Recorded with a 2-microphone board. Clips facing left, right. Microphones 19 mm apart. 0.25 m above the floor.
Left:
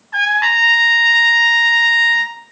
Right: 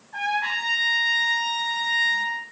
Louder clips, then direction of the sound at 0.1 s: Left 11 dB; 55° left (ahead or behind).